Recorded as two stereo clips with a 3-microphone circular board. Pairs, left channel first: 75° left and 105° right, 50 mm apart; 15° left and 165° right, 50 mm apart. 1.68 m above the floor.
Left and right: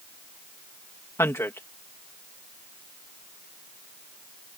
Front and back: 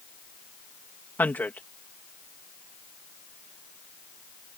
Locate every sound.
1.2 s a man speaking: 65° left